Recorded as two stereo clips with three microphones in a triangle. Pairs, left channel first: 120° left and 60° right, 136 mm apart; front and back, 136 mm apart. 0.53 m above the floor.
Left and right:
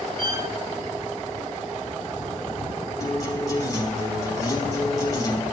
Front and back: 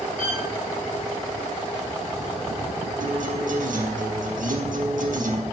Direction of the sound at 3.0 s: Straight behind.